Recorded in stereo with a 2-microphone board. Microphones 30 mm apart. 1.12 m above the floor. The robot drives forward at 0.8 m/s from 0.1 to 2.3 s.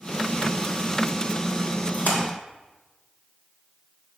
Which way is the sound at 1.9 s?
55° left (ahead or behind).